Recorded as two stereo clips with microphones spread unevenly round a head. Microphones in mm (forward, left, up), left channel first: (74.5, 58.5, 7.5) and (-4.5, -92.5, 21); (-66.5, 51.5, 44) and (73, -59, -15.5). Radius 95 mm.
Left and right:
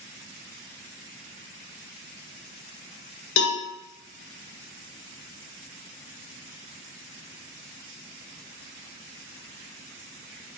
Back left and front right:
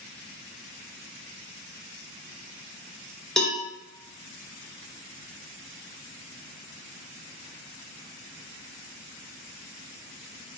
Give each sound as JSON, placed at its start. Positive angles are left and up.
{"t": 3.4, "sound": "a cowbell", "azimuth_deg": 65, "distance_m": 0.6}